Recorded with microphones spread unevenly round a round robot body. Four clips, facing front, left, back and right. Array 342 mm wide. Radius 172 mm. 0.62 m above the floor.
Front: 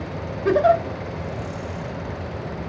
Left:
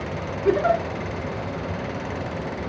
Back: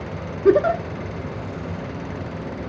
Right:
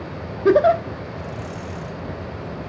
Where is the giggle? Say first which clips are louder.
Right 5 dB, back 1 dB; 145° right, 0.6 m.